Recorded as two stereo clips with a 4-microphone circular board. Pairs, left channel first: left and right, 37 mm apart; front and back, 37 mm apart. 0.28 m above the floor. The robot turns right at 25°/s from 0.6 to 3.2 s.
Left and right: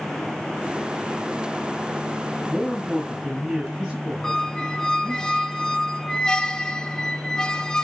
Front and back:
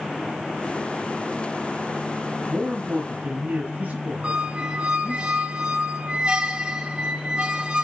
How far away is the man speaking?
About 1.9 m.